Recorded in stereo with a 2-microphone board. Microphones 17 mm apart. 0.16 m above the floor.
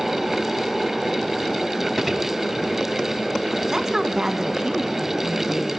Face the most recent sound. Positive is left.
turn(degrees=-30)  # may be behind; listen again after turning